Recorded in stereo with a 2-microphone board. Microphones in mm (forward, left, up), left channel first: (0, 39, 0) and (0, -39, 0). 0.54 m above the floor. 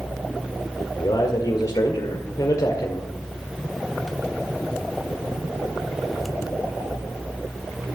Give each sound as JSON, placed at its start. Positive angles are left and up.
{"t": 1.0, "sound": "a man speaking", "side_deg": 55, "distance_m": 1.8}